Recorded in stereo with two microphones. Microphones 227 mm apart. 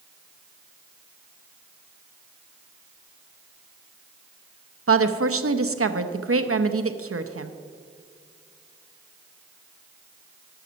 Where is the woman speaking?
75° right (ahead or behind), 0.7 m.